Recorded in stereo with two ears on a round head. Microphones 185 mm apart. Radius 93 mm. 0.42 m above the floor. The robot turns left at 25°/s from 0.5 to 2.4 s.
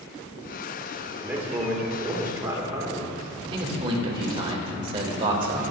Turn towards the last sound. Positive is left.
turn(degrees=-25)  # may be behind; listen again after turning